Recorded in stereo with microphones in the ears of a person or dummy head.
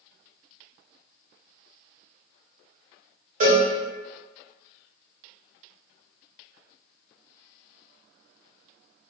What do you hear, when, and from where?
3.4 s a cowbell: 45° right (ahead or behind), 1.0 m